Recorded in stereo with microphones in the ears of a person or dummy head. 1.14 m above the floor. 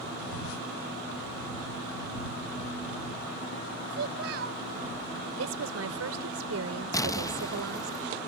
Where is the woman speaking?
85° right.